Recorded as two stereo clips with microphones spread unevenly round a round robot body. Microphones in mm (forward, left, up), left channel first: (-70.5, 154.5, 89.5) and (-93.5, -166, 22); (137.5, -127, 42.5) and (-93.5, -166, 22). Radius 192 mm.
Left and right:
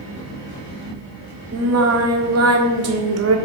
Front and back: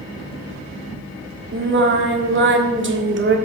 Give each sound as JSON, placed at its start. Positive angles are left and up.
{"t": 1.5, "sound": "singing", "azimuth_deg": -135, "distance_m": 1.6}